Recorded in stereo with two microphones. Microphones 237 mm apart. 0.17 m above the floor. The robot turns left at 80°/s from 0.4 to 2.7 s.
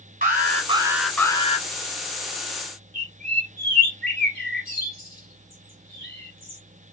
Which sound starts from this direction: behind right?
An alarm, at 0.2 s.